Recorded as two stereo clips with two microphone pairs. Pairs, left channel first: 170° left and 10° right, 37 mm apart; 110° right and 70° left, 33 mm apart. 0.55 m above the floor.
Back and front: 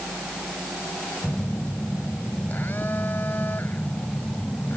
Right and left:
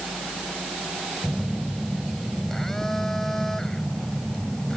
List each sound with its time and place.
1.2 s a phone buzzing: 175° left